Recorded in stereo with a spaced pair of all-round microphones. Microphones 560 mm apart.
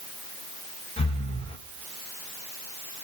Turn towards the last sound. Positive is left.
turn(degrees=10)  # may be behind; listen again after turning